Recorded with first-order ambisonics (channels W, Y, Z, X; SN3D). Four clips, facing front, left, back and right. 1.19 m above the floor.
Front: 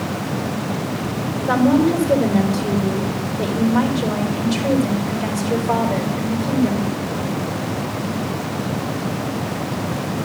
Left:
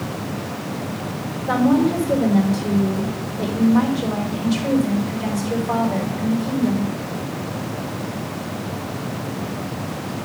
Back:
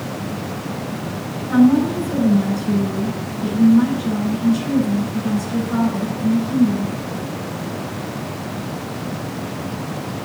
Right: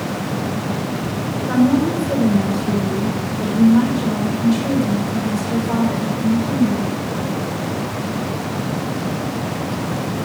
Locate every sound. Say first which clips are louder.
1.5 s a woman speaking: right 1 dB, back 1 dB; 25° left, 3.5 m